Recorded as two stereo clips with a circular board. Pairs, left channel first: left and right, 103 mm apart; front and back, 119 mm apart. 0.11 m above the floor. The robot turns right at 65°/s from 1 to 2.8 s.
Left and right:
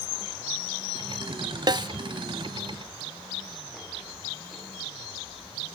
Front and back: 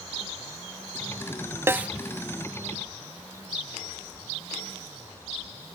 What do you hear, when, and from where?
1.7 s a snare drum: 115° right, 0.6 m; by 1.9 s 100° right, 0.6 m